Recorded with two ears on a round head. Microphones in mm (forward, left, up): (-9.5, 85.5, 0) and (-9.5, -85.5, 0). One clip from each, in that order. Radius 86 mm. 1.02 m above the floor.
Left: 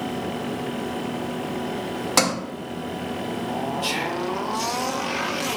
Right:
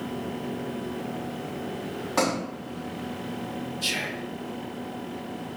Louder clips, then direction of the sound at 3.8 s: Even; 35° right (ahead or behind).